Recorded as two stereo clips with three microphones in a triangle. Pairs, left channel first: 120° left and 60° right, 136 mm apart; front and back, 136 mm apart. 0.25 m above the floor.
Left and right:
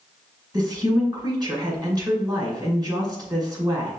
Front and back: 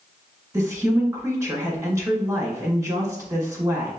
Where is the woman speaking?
115° right, 1.9 m.